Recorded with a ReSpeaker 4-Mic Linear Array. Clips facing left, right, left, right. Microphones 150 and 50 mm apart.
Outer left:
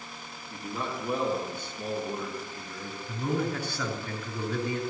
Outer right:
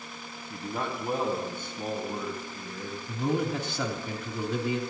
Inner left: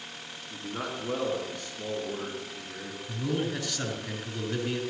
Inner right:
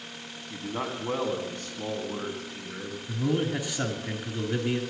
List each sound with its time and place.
0.5 s a man speaking: 55° right (ahead or behind), 2.5 m; by 3.0 s 50° right (ahead or behind), 3.5 m
3.1 s a man speaking: 20° right (ahead or behind), 2 m